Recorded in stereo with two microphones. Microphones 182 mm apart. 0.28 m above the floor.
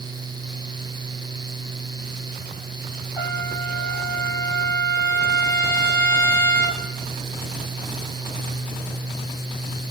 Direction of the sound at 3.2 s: 20° left (ahead or behind).